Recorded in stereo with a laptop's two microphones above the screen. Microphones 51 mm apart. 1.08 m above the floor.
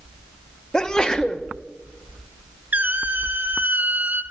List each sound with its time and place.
0.7 s a sneeze: 15° left (ahead or behind), 0.7 m
2.7 s a squeak: 35° right (ahead or behind), 0.9 m